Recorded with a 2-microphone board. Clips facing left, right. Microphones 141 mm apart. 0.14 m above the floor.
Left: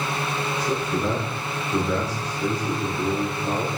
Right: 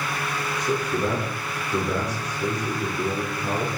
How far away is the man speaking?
About 6 m.